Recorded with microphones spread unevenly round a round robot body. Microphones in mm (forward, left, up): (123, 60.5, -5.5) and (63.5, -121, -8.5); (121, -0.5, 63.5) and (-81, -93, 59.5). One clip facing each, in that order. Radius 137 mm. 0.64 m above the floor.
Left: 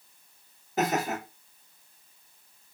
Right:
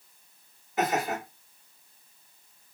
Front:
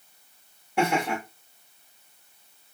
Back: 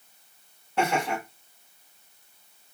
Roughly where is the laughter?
Left.